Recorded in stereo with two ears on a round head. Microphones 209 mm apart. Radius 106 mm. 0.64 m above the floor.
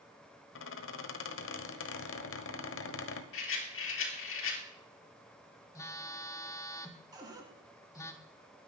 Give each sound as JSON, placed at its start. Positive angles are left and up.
{"t": 0.6, "sound": "a squeak", "side_deg": 60, "distance_m": 1.2}
{"t": 3.3, "sound": "a rattle", "side_deg": 60, "distance_m": 3.5}
{"t": 5.8, "sound": "a phone buzzing", "side_deg": 15, "distance_m": 1.1}
{"t": 7.1, "sound": "a cupboard door", "side_deg": -15, "distance_m": 2.0}